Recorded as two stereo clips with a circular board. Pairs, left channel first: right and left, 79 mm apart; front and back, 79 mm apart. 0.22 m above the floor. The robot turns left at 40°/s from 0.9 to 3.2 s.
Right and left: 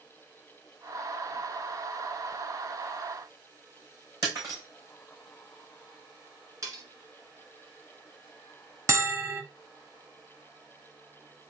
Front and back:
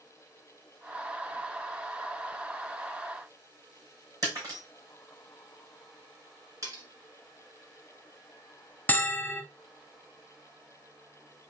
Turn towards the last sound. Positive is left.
turn(degrees=60)